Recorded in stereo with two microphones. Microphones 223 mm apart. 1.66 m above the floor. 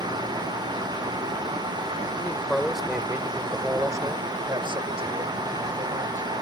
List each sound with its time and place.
2.2 s a man speaking: 5° left (ahead or behind); by 6.2 s 35° right (ahead or behind)